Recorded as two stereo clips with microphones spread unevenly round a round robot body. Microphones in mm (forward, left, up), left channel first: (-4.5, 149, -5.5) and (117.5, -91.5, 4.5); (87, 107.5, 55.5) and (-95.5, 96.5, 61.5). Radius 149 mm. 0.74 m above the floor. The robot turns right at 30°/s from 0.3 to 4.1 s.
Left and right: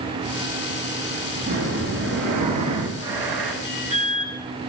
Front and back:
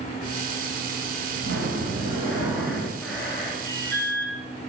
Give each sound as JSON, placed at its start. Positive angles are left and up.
{"t": 1.4, "sound": "breathing", "azimuth_deg": -130, "distance_m": 3.5}
{"t": 3.6, "sound": "an alarm", "azimuth_deg": -120, "distance_m": 7.0}